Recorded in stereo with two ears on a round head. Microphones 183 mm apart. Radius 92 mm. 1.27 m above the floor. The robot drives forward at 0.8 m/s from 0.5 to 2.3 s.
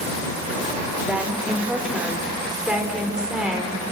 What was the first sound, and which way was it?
A woman speaking, 5° right (ahead or behind).